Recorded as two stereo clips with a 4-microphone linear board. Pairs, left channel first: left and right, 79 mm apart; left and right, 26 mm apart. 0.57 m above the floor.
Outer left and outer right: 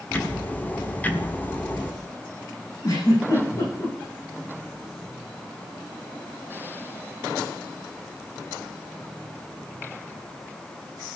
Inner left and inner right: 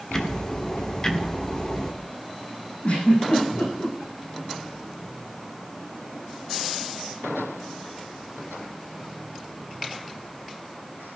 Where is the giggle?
50° left (ahead or behind), 8.5 m.